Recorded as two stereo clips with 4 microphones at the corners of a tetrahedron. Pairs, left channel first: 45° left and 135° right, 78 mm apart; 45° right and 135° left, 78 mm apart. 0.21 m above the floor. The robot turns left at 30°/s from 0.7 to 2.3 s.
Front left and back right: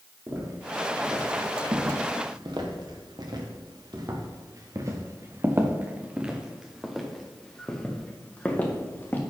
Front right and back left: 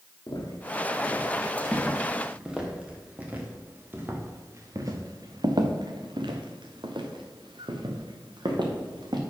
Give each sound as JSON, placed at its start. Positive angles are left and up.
{"t": 0.3, "sound": "footsteps", "azimuth_deg": -85, "distance_m": 3.5}